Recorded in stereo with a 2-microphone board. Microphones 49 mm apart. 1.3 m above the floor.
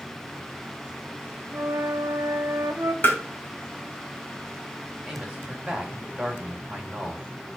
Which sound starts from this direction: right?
A flute, at 1.5 s.